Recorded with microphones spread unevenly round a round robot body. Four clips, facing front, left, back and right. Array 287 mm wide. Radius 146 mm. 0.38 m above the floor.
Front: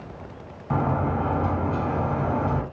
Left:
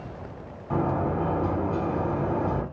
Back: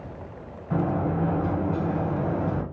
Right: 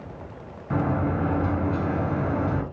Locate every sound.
0.7 s a sliding door: 5° right, 3.5 m